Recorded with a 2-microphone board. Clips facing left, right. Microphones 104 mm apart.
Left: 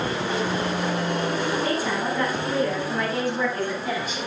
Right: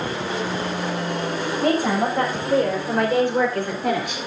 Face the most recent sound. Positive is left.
turn(degrees=-65)  # may be behind; listen again after turning